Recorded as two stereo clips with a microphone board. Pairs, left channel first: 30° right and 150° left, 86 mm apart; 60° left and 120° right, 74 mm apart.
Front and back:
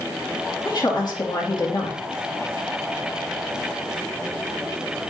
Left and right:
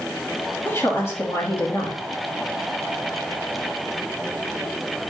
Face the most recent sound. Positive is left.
turn(degrees=5)